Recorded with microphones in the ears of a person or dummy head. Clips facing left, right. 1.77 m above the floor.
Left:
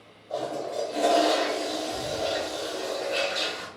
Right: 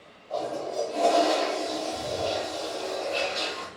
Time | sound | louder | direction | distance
0.3 | a toilet flushing | even | 20° left (ahead or behind) | 0.6 m